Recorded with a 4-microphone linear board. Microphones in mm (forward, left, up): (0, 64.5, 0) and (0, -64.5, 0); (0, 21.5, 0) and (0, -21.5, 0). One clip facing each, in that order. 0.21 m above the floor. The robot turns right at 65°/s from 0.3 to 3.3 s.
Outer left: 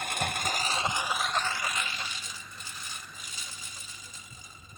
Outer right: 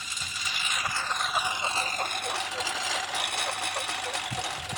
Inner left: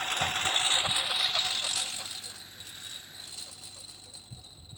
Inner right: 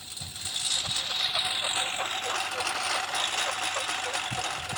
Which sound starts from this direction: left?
A lawn mower, at 0.0 s.